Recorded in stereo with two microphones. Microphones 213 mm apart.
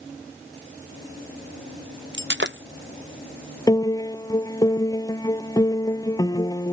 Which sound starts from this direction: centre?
A piano, at 3.7 s.